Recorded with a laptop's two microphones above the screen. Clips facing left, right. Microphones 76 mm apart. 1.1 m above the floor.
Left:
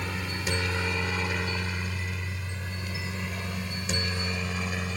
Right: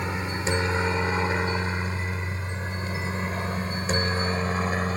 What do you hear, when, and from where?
0.0 s a helicopter: 25° right (ahead or behind); by 5.0 s 40° right (ahead or behind)